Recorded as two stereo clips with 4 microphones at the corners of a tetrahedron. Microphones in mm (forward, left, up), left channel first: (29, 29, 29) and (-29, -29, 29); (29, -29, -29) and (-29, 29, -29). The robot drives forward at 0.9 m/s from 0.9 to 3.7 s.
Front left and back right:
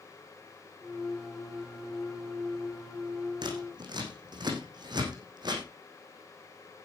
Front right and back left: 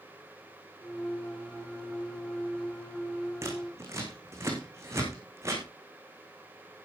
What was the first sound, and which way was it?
Scissors, 170° right.